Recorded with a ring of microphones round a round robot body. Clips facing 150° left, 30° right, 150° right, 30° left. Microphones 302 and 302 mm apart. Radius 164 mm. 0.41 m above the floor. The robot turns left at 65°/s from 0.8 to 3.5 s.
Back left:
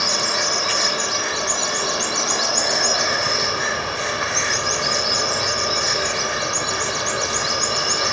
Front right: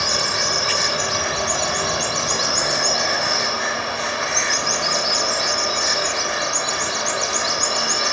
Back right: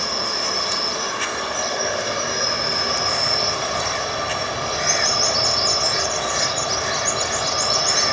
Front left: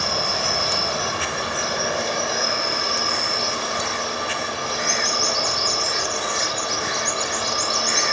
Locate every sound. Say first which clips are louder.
0.0 s an insect: even, front left 1 dB; 15° left, 2.5 m; by 8.2 s 160° right, 2.5 m